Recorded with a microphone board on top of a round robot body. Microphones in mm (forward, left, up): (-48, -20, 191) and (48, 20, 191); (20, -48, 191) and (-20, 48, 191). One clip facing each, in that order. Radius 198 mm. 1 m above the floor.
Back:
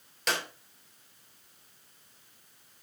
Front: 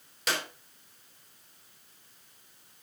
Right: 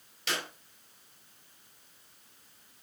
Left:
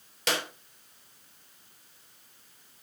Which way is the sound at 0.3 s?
110° left.